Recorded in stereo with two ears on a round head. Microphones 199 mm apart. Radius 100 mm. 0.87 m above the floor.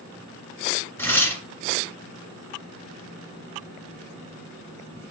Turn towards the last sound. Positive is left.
turn(degrees=10)  # may be behind; listen again after turning